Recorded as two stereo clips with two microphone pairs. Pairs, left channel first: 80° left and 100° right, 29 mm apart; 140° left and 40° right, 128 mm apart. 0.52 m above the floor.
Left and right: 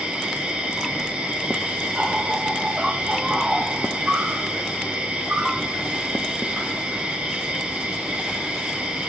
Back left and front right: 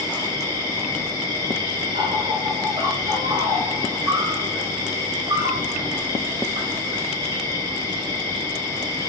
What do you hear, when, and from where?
0.0 s an insect: 85° right, 2.0 m